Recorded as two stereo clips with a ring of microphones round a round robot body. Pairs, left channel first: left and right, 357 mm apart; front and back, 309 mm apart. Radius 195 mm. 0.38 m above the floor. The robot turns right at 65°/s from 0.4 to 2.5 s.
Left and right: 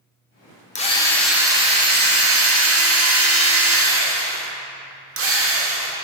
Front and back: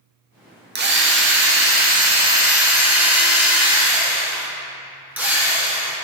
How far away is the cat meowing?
No cat meowing in this recording.